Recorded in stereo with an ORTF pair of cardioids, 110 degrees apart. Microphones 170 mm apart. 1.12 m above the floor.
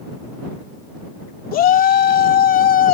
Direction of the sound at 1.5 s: 55° left.